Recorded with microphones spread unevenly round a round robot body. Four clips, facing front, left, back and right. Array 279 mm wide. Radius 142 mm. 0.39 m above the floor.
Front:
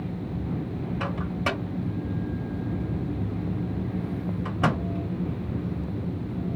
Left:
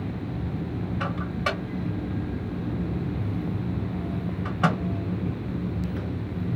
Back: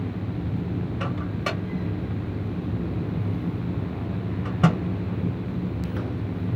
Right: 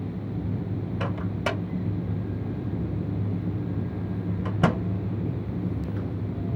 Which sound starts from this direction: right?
A microwave, at 1.0 s.